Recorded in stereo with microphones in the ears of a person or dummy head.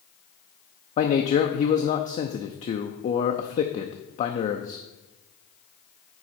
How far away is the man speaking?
About 0.5 m.